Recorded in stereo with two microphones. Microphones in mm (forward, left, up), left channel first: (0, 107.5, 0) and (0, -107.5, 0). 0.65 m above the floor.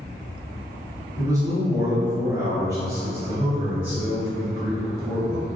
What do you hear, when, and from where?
1.2 s a man speaking: 15° right (ahead or behind), 1.1 m; by 5.5 s 5° right (ahead or behind), 1.9 m